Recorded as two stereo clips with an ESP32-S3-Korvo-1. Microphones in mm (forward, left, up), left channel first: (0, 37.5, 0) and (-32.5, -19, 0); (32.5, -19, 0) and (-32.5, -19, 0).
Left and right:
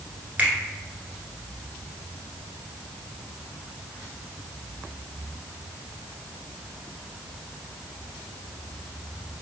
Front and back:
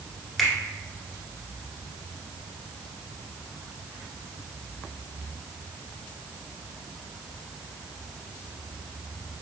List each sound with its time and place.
0.4 s a finger snap: 85° right, 1.3 m